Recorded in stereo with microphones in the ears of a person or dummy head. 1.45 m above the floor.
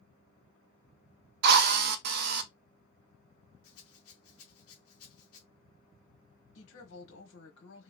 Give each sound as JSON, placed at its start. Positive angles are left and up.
{"t": 1.4, "sound": "a drill", "side_deg": -55, "distance_m": 0.6}
{"t": 3.6, "sound": "a rattle", "side_deg": 80, "distance_m": 0.8}
{"t": 6.5, "sound": "a woman speaking", "side_deg": 80, "distance_m": 1.3}